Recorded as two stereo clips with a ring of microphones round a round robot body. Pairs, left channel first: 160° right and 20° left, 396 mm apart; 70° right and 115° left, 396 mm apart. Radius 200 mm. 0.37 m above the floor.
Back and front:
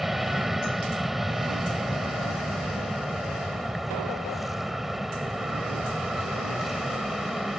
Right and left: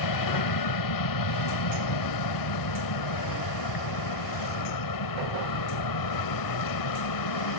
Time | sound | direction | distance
0.0 | an aircraft | 65° right | ?